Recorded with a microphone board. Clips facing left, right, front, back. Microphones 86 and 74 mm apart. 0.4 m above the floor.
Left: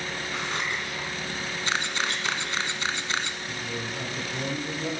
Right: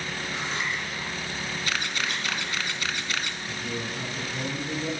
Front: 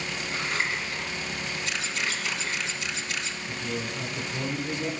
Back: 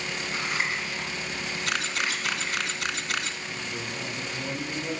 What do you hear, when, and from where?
0.3 s scissors: 105° left, 3.5 m
1.7 s a camera shutter: 155° left, 0.8 m
3.5 s a man speaking: 40° left, 3 m